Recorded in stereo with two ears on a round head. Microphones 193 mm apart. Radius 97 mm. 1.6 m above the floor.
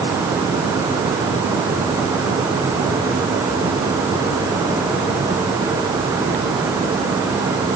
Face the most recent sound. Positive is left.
No sound to turn to.